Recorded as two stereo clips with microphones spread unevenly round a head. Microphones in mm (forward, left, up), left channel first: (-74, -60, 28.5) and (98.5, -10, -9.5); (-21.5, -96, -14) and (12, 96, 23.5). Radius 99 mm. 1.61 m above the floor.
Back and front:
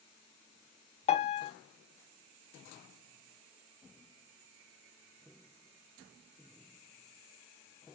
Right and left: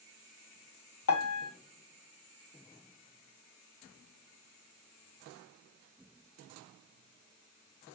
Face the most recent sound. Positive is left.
turn(degrees=-120)